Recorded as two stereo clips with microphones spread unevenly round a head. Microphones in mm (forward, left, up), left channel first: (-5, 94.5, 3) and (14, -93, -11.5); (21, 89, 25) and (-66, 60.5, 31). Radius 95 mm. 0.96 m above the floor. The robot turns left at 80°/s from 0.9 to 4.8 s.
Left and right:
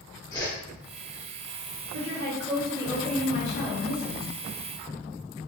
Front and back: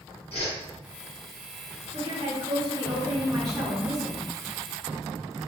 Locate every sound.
0.3 s a whoosh: 25° left, 1.6 m
1.9 s a woman speaking: 90° right, 2 m; by 4.3 s 85° left, 2 m